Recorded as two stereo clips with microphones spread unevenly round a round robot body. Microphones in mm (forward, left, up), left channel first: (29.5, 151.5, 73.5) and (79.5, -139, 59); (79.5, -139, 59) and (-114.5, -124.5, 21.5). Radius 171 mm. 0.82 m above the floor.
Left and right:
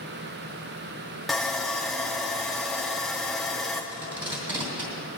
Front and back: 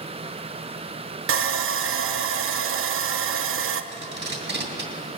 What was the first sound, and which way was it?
Sawing, 170° right.